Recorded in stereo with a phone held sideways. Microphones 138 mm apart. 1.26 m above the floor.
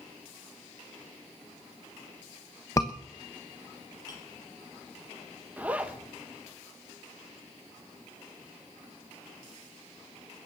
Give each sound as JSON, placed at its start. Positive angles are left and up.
{"t": 2.8, "sound": "a scream", "side_deg": 25, "distance_m": 1.1}
{"t": 4.1, "sound": "a clink", "side_deg": 30, "distance_m": 6.0}
{"t": 5.6, "sound": "a zipper", "side_deg": -10, "distance_m": 1.7}